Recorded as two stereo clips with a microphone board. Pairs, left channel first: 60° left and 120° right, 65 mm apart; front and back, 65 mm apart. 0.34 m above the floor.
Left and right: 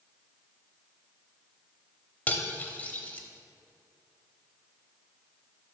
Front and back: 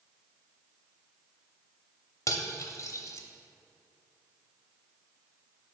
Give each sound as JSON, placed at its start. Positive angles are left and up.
{"t": 2.3, "sound": "cutlery clinking", "azimuth_deg": 0, "distance_m": 0.7}